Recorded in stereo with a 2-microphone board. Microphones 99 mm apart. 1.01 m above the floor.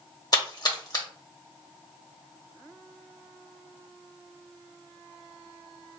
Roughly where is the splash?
Left.